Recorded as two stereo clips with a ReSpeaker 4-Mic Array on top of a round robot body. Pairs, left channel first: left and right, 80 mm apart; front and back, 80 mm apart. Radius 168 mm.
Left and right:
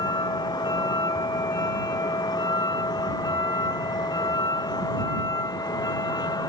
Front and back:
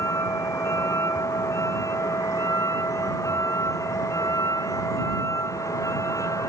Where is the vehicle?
55° left; by 6.5 s 50° left.